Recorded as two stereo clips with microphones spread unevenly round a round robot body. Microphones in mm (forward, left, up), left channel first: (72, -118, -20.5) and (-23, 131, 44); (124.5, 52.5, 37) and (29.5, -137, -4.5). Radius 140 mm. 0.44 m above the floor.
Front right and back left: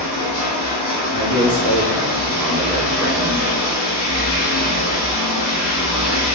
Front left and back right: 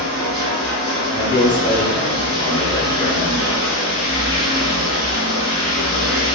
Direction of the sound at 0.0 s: 150° right.